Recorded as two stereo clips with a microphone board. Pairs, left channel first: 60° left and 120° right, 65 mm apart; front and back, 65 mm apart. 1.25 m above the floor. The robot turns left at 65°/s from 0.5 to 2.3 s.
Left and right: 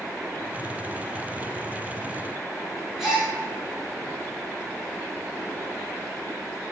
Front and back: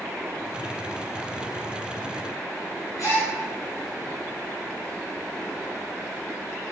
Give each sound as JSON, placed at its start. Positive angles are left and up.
{"t": 3.0, "sound": "a gasp", "azimuth_deg": -35, "distance_m": 0.9}